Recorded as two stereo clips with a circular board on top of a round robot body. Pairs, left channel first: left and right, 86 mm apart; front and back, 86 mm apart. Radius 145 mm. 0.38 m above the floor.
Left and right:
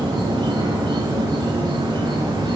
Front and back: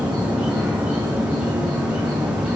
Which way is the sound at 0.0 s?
105° right.